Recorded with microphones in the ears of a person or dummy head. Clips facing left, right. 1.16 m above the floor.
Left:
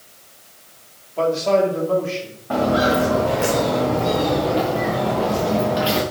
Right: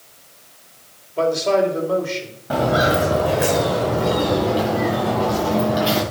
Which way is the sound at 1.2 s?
15° right (ahead or behind).